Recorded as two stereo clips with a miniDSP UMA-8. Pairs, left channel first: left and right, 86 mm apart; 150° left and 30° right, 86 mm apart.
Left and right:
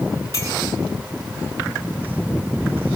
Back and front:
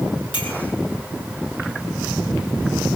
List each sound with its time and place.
0.3 s a clink: 145° left, 8 m